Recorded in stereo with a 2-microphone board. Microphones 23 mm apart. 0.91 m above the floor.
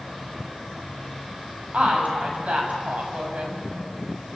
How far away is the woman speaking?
About 7.5 m.